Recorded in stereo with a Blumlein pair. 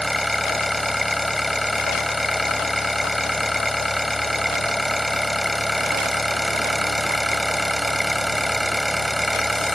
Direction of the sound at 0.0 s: 5° left.